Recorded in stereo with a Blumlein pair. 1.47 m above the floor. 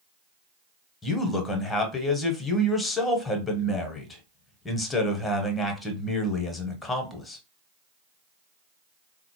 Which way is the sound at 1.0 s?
10° left.